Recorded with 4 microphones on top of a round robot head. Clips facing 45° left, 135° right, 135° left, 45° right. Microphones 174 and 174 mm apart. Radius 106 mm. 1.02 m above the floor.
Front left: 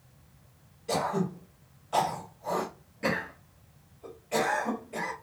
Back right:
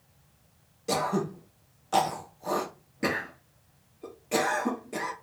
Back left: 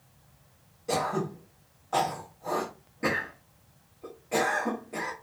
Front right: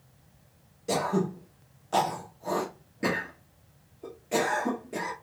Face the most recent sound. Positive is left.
turn(degrees=-105)